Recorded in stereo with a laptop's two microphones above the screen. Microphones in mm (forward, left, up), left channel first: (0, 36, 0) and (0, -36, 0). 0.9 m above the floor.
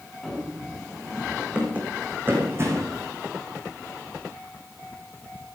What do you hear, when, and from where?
0.2 s running footsteps: 5° left (ahead or behind), 3 m; by 3.0 s 45° right (ahead or behind), 2.5 m